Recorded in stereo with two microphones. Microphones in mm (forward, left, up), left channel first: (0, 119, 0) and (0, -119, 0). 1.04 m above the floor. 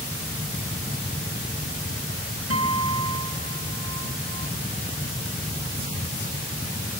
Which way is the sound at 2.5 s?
75° right (ahead or behind).